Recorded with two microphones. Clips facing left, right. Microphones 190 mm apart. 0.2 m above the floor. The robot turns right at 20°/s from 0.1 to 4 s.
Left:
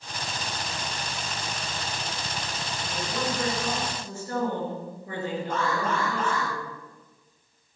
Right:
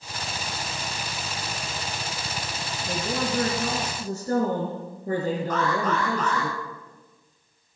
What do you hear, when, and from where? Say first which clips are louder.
2.9 s a woman speaking: right 4 dB; 60° right (ahead or behind), 3.5 m; by 6.5 s 40° right (ahead or behind), 3.5 m
5.5 s an alarm: even; 25° left (ahead or behind), 8 m